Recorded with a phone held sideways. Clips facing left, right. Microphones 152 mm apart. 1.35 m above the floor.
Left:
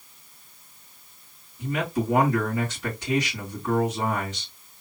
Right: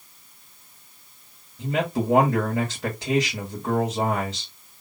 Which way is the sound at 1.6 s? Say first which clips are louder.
Right 2 dB; 80° right.